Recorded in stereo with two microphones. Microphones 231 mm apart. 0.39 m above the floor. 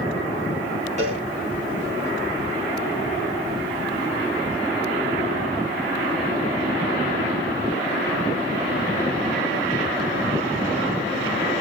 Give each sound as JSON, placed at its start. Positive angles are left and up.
{"t": 1.0, "sound": "a cowbell", "side_deg": -30, "distance_m": 6.0}